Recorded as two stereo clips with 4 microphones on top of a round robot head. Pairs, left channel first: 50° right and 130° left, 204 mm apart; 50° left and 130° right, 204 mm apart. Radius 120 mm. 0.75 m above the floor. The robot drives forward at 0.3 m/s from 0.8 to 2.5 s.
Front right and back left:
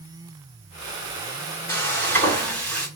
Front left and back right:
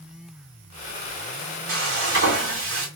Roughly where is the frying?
Behind right.